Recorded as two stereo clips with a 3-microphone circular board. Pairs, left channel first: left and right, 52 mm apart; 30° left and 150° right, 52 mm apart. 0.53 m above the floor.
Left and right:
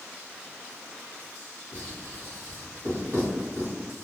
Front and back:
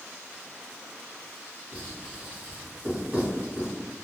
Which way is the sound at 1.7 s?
90° right.